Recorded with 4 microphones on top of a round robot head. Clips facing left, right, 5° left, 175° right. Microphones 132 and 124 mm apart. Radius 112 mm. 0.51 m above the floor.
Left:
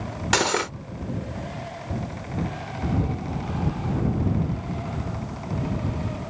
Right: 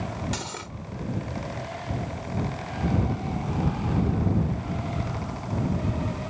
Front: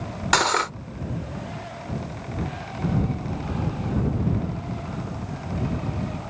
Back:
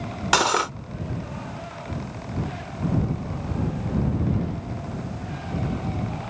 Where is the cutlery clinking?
105° left.